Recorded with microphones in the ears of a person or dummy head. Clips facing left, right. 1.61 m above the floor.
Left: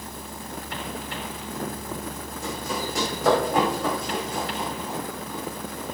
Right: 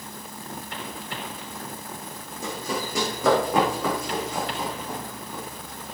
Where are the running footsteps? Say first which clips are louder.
Right 1 dB; 60° right (ahead or behind), 6.5 m; by 5.4 s 75° right (ahead or behind), 8.5 m.